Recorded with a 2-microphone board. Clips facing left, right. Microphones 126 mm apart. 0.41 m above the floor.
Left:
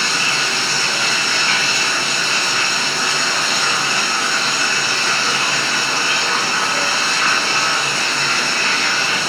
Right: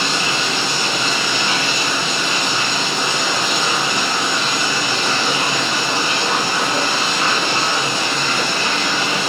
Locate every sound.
0.0 s running water: 20° right (ahead or behind), 1.7 m